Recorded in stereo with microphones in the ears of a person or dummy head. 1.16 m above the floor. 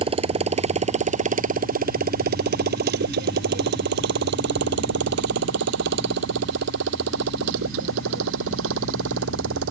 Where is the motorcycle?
25° right (ahead or behind); by 9.7 s 90° right.